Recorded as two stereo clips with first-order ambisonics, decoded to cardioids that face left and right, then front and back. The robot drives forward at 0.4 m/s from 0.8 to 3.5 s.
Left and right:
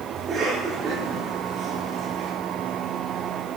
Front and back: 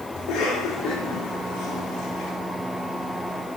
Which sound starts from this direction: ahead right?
A cough, at 0.2 s.